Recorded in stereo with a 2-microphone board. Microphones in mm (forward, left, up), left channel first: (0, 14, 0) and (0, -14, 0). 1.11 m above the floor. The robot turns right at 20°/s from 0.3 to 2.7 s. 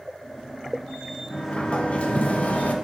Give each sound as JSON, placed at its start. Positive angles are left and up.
{"t": 1.3, "sound": "a sliding door", "side_deg": 35, "distance_m": 0.6}